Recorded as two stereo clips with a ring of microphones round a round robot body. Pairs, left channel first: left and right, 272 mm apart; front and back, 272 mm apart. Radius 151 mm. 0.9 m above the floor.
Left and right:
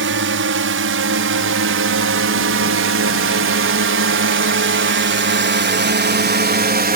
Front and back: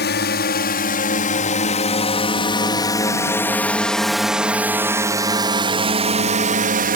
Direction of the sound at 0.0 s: 50° right.